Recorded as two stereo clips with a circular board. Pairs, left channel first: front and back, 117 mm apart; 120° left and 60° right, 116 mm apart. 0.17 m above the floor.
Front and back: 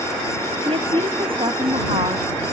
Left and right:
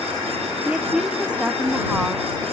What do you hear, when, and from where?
0.6 s a woman speaking: 140° right